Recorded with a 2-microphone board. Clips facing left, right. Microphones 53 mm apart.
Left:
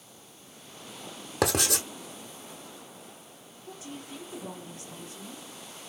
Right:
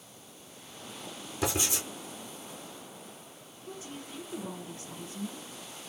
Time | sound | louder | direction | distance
1.4 | writing | left 5 dB | 70° left (ahead or behind) | 0.9 m
3.7 | a woman speaking | left 1 dB | 30° right (ahead or behind) | 2.0 m